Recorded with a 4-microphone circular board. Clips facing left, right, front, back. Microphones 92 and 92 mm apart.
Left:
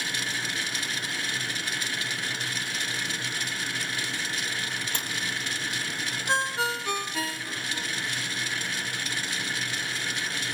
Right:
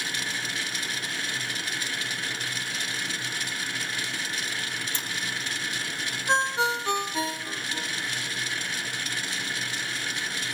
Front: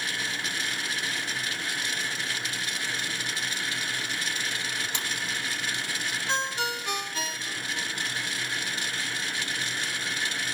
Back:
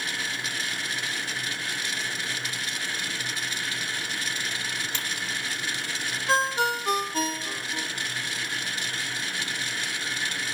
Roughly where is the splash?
Left.